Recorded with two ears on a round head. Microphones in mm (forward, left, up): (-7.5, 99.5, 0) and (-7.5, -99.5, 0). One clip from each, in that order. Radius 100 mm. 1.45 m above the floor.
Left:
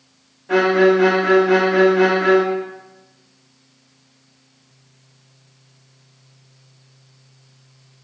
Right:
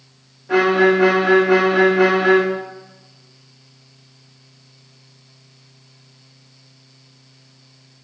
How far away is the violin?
About 2 m.